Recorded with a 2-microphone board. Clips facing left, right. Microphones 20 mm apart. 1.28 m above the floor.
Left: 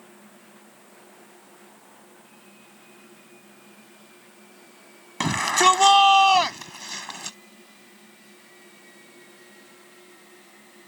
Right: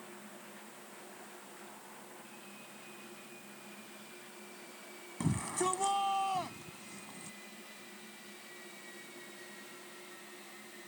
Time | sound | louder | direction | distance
5.2 | a shout | left 16 dB | 80° left | ?